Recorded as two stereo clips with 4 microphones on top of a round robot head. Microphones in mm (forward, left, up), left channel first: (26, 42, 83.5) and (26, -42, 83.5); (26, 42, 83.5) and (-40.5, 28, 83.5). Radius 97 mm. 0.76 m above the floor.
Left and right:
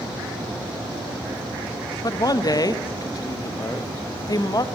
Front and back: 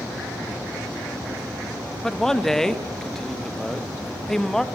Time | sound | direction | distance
2.0 | a man speaking | 95° left | 1.4 m